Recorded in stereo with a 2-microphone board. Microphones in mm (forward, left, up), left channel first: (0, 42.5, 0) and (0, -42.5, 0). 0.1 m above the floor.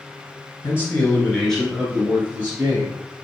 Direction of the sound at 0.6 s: 30° left (ahead or behind).